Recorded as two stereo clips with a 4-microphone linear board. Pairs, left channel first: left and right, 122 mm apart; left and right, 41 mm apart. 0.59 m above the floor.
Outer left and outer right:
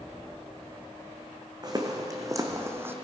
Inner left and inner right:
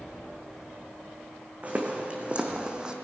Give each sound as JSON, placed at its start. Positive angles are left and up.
{"t": 1.6, "sound": "footsteps", "side_deg": -35, "distance_m": 1.6}